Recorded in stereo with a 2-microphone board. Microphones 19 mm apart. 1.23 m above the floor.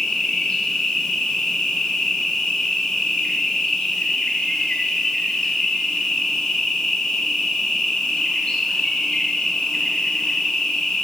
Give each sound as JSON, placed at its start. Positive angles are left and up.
{"t": 0.0, "sound": "an insect", "side_deg": 60, "distance_m": 1.1}